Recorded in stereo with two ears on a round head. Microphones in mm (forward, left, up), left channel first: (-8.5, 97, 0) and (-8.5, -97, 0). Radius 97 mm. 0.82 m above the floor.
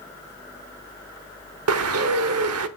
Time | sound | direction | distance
1.7 | a bird | 75° right (ahead or behind) | 1.1 m